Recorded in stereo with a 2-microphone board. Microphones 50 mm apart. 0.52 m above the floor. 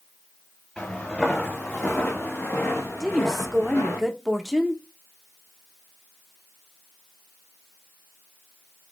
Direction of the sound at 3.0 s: 10° right (ahead or behind).